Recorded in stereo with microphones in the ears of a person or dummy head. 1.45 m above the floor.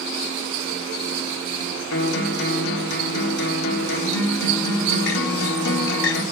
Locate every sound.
1.9 s a guitar: 65° left (ahead or behind), 1.8 m